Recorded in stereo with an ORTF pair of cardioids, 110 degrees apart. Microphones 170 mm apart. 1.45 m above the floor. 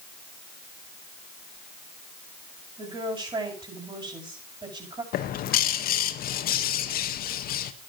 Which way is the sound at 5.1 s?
60° left.